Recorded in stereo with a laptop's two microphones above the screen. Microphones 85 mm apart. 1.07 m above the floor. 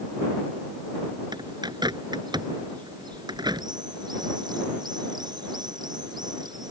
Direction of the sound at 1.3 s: 55° right (ahead or behind).